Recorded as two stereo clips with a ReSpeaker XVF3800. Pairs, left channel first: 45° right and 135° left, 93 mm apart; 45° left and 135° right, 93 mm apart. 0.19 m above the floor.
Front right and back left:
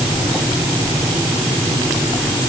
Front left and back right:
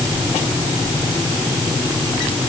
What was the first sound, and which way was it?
Only background noise.